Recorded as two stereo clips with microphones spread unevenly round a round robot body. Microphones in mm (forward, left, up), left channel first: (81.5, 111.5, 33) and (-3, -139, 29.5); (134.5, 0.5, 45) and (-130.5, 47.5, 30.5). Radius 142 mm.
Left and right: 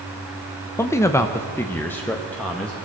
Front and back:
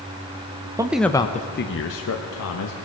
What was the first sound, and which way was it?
A man speaking, 135° left.